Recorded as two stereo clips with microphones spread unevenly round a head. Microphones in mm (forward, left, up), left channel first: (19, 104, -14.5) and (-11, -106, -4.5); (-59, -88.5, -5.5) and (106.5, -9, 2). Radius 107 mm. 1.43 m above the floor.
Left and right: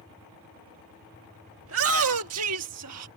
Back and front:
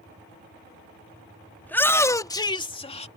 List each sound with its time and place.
1.6 s a shout: 70° right; by 3.1 s 100° right